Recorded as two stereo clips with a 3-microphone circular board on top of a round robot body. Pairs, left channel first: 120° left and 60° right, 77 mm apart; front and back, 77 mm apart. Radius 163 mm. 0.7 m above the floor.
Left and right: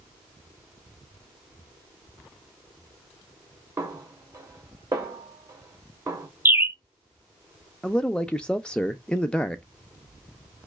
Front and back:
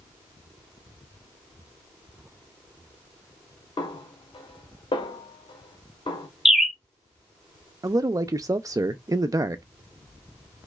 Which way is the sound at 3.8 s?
10° right.